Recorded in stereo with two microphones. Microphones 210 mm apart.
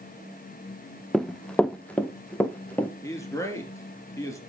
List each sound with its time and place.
1.1 s running footsteps: centre (ahead or behind), 0.5 m; by 2.9 s 5° left (ahead or behind), 2 m
3.0 s a man speaking: 15° left (ahead or behind), 3 m